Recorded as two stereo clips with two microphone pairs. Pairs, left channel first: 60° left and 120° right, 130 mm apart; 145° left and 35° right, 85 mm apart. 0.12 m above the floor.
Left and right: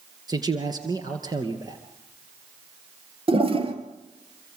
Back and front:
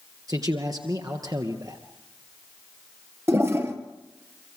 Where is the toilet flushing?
90° right, 2.5 m.